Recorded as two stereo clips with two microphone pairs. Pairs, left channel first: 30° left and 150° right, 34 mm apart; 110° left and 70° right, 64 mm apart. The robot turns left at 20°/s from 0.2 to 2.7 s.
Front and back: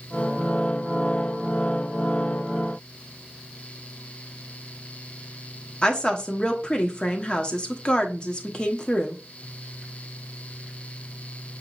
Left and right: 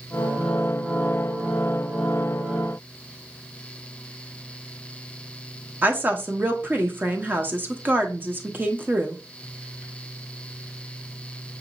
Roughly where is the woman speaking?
Ahead.